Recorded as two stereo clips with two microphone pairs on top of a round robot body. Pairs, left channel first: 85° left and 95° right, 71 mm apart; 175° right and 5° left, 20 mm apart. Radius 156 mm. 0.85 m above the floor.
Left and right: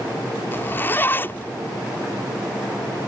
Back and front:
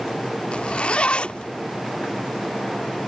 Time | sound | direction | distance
0.5 | a zipper | 150° left | ?